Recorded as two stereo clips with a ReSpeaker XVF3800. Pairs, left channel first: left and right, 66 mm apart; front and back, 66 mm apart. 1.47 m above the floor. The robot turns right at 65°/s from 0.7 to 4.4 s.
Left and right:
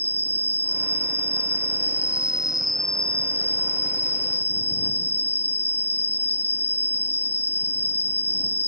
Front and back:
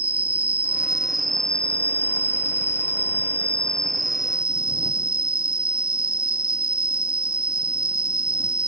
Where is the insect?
125° right; by 8.7 s 115° left.